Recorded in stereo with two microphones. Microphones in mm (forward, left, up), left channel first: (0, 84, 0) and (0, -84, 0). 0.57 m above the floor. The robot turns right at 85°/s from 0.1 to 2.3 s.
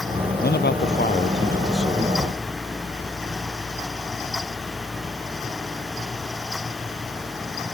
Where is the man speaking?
65° left; by 2.3 s 135° right.